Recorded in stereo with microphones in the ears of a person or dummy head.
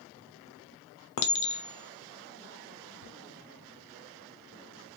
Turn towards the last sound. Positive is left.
turn(degrees=80)